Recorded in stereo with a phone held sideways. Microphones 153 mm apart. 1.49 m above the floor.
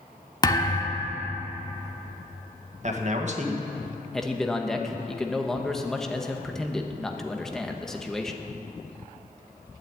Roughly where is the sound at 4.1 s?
Centre.